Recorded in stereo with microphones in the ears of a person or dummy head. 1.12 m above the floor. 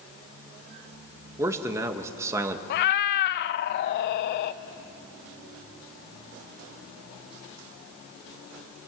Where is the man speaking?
20° right (ahead or behind), 1.3 m.